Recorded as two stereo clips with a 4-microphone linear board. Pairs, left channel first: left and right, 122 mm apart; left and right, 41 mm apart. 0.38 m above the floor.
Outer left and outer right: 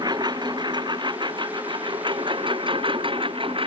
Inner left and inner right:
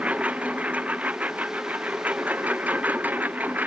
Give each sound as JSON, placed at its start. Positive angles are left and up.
{"t": 0.0, "sound": "a lawn mower", "side_deg": -35}